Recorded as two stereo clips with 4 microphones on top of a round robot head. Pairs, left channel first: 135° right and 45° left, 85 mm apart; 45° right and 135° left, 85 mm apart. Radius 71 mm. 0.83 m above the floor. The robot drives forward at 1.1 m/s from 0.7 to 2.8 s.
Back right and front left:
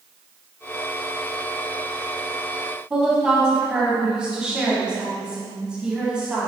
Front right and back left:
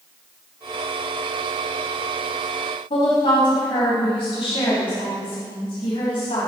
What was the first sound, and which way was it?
A woman speaking, 35° right.